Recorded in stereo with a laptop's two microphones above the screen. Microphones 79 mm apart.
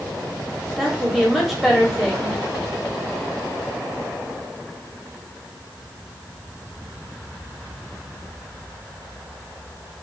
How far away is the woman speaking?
About 1.1 m.